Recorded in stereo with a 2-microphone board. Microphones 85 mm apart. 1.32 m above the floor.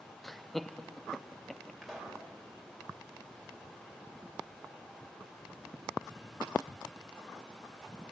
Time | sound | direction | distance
0.2 | laughter | 5° left (ahead or behind) | 0.7 m
1.8 | a pop | centre (ahead or behind) | 5 m